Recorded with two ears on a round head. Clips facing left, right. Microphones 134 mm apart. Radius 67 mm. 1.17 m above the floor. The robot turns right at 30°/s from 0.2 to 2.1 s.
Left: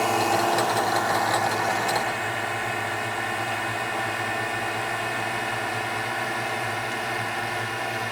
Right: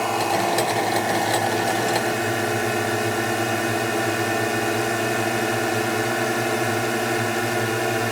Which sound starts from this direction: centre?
A drone, at 0.0 s.